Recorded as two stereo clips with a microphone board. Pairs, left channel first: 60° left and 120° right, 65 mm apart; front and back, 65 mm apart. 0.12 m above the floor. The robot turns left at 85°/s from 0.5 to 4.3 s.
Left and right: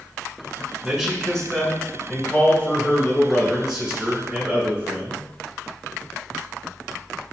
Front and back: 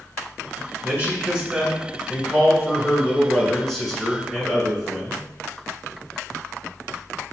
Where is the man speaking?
Straight behind, 1.1 m; by 5.2 s 115° right, 1.1 m.